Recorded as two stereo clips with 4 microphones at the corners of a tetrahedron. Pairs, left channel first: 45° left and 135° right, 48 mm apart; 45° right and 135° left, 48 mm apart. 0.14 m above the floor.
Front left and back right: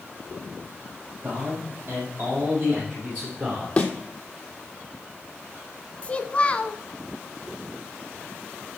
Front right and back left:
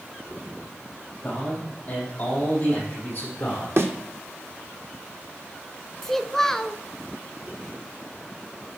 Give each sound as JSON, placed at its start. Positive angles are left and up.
{"t": 1.2, "sound": "a man speaking", "azimuth_deg": -110, "distance_m": 5.5}
{"t": 3.8, "sound": "a thud", "azimuth_deg": 110, "distance_m": 1.2}
{"t": 6.0, "sound": "a child speaking", "azimuth_deg": 30, "distance_m": 0.6}